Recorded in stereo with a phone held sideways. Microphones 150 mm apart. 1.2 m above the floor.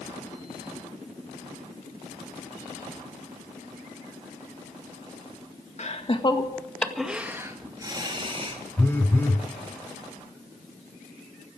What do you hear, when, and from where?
5.8 s laughter: 50° left (ahead or behind), 1.9 m; by 8.6 s 40° right (ahead or behind), 3.5 m
8.8 s a phone buzzing: 15° left (ahead or behind), 1.7 m